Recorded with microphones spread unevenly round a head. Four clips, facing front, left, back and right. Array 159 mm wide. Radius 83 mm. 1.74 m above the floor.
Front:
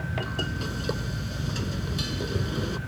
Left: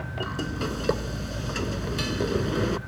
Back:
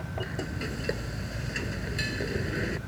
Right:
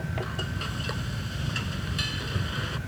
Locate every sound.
0.2 s frying: 95° left